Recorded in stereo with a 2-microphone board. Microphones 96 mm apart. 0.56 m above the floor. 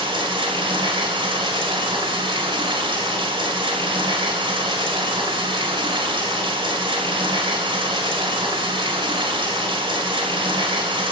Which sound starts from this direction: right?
Running water, at 0.0 s.